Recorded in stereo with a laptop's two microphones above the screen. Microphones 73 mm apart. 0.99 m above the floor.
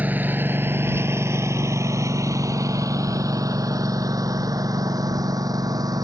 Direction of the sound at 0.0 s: 25° right (ahead or behind).